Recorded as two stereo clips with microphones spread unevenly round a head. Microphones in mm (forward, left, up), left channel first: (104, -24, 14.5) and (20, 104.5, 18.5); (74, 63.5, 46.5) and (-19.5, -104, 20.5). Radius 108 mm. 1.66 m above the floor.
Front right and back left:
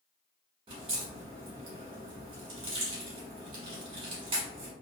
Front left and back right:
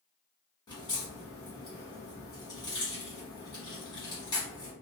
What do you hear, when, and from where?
0.7 s a crack: 105° left, 1.1 m